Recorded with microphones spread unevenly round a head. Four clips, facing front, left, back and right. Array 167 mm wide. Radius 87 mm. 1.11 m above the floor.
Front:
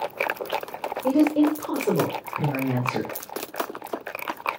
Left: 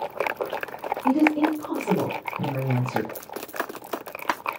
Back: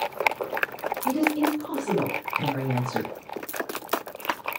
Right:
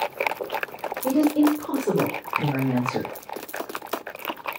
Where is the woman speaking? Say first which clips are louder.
Right 1 dB, front 5 dB; 40° right, 4 m; by 3.1 s 55° right, 5 m.